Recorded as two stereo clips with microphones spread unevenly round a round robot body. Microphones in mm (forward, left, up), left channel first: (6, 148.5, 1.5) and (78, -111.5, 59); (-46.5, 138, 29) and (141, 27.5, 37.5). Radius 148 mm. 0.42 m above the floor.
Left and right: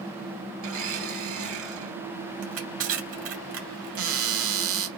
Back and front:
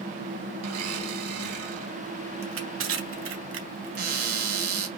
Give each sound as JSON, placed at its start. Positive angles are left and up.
{"t": 0.6, "sound": "a blender", "azimuth_deg": -35, "distance_m": 3.0}
{"t": 2.4, "sound": "crushing", "azimuth_deg": -35, "distance_m": 3.0}
{"t": 4.0, "sound": "a cupboard door", "azimuth_deg": -70, "distance_m": 1.7}